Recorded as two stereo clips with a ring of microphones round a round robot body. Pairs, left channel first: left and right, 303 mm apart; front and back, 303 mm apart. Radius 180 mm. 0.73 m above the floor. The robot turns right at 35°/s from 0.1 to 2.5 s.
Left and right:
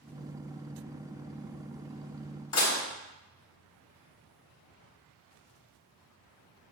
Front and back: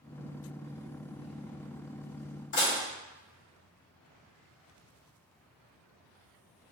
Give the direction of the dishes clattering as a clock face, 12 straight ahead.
10 o'clock.